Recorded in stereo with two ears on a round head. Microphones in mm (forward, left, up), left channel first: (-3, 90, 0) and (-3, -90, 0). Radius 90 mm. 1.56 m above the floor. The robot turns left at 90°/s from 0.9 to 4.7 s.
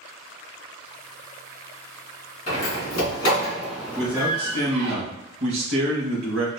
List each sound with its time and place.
2.5 s a door slam: 40° left (ahead or behind), 1.8 m; by 5.0 s 60° right (ahead or behind), 1.8 m
4.0 s a man speaking: 5° left, 1.9 m; by 6.6 s 60° right, 1.9 m